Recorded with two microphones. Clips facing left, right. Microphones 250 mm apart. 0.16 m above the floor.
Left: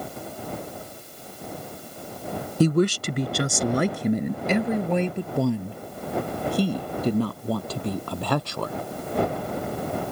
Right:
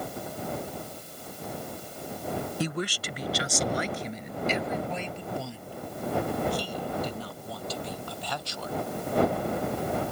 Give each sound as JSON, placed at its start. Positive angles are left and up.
{"t": 2.6, "sound": "a woman speaking", "side_deg": 45}